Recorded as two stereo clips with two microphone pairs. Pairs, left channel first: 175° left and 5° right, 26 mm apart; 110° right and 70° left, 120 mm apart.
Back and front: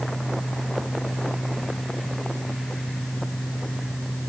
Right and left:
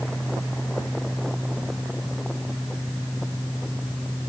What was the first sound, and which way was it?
Only background noise.